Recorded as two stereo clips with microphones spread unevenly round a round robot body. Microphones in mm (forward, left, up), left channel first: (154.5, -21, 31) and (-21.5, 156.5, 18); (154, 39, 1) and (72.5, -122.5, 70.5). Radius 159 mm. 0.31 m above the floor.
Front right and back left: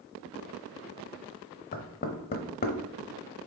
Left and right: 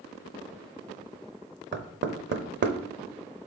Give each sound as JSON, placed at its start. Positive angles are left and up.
{"t": 1.7, "sound": "knocking", "azimuth_deg": -95, "distance_m": 0.9}